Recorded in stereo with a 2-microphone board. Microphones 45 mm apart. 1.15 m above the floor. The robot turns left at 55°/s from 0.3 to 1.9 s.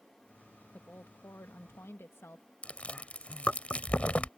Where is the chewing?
30° left (ahead or behind).